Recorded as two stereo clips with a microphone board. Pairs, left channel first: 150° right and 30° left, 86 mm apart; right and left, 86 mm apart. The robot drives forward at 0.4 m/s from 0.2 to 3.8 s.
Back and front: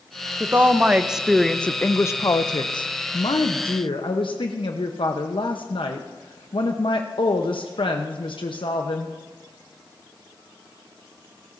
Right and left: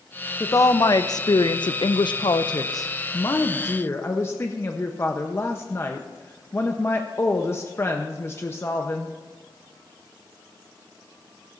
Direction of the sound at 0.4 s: 35° right.